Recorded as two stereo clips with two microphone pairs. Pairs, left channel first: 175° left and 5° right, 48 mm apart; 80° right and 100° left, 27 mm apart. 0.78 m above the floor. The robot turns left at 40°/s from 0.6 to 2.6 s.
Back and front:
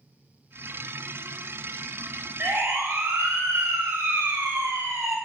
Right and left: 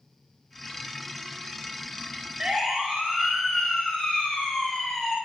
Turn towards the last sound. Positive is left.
turn(degrees=-10)